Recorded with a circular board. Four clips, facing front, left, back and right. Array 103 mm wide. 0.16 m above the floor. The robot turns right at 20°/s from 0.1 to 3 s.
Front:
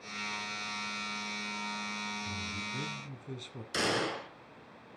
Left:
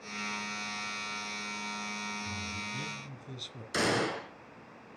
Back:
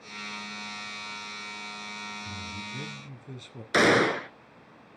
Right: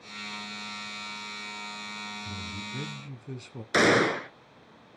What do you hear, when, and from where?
2.2 s a man speaking: 110° right, 1.2 m; by 3.6 s 95° right, 1.2 m
3.7 s a gunshot: 140° right, 0.9 m